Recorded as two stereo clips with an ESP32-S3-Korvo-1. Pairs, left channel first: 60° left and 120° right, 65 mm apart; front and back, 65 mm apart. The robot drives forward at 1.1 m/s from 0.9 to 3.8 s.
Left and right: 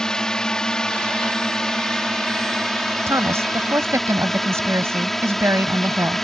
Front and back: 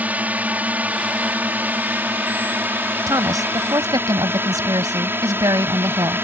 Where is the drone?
135° left; by 6.2 s 145° left.